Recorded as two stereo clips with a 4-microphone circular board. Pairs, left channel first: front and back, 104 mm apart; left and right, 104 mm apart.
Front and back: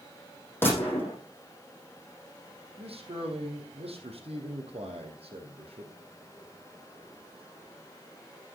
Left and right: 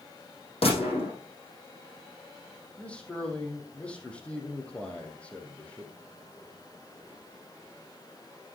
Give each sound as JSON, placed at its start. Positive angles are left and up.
{"t": 0.6, "sound": "a gunshot", "azimuth_deg": 70, "distance_m": 5.5}
{"t": 2.8, "sound": "a man speaking", "azimuth_deg": 170, "distance_m": 3.5}